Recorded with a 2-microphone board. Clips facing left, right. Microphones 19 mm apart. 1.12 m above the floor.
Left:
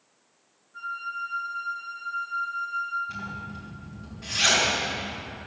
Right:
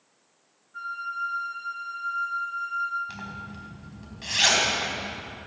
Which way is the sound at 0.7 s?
20° right (ahead or behind).